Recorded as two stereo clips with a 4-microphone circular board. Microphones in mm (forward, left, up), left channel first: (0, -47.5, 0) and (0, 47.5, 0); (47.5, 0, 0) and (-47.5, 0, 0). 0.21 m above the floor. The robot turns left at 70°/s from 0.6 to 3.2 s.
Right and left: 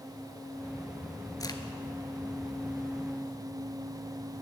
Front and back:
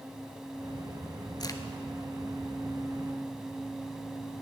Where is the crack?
40° right, 0.7 m; by 1.6 s 55° right, 0.7 m.